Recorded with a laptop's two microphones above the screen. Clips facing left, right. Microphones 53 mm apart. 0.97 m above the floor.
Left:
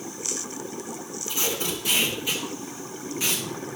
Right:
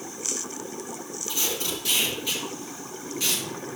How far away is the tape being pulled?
About 3.5 m.